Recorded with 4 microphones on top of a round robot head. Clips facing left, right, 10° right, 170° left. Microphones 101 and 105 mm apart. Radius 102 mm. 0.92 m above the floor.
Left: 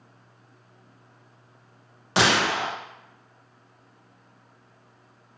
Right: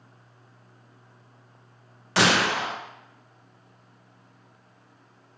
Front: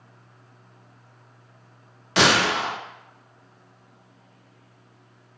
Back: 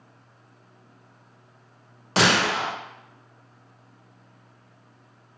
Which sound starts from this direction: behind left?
A gunshot, at 2.2 s.